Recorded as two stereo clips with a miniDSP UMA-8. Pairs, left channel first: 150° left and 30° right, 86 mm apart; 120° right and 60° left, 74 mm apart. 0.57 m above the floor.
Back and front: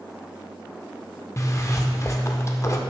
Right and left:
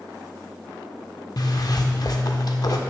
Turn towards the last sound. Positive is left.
turn(degrees=-155)